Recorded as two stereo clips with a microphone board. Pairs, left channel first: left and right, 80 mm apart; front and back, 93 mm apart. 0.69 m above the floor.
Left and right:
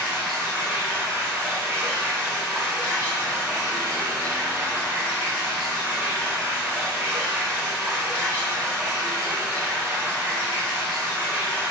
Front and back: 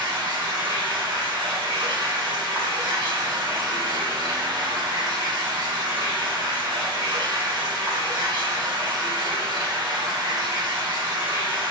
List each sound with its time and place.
0.0 s running water: 150° right, 1.5 m